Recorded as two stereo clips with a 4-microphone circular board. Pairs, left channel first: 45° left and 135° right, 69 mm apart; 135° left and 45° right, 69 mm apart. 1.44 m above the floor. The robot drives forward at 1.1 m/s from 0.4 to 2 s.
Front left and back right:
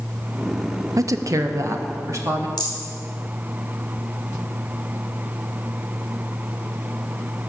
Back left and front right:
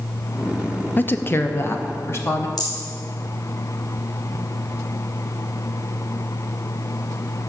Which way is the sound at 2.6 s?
120° left.